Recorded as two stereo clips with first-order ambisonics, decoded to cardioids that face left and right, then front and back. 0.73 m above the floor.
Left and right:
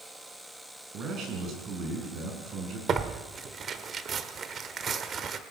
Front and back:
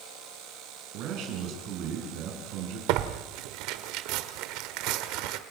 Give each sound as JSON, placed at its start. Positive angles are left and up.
{"t": 0.9, "sound": "a man speaking", "azimuth_deg": -145, "distance_m": 6.5}
{"t": 2.9, "sound": "tearing paper", "azimuth_deg": -155, "distance_m": 1.1}